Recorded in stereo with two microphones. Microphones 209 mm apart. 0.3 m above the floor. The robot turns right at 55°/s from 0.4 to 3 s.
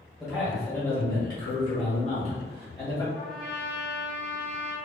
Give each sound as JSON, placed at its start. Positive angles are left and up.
{"t": 0.2, "sound": "a man speaking", "azimuth_deg": -5, "distance_m": 1.3}
{"t": 3.1, "sound": "a trumpet", "side_deg": -35, "distance_m": 1.7}